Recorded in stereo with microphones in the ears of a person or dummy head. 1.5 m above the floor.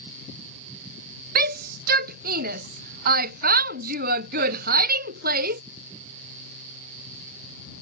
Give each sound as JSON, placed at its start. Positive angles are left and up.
{"t": 1.4, "sound": "a shout", "side_deg": -55}